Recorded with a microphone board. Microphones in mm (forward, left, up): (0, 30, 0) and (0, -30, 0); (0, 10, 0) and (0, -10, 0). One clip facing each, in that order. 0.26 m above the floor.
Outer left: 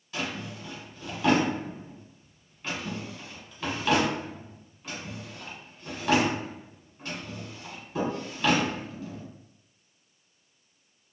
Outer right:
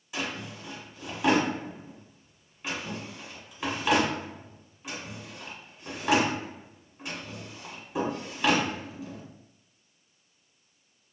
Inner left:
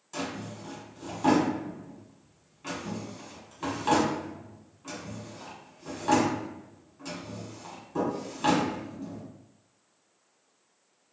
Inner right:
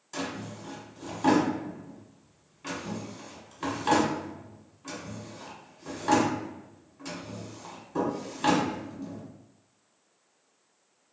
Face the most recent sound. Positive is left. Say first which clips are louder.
# outer left 1 dB, even
turn(degrees=-10)  # may be behind; listen again after turning